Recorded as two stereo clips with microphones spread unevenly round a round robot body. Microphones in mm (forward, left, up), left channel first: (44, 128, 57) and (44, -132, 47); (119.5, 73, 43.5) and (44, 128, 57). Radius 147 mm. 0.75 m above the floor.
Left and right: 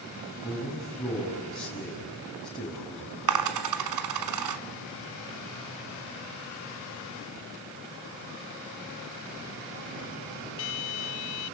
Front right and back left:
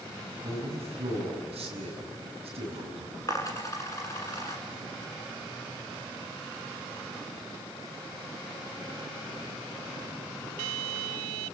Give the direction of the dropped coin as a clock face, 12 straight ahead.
4 o'clock.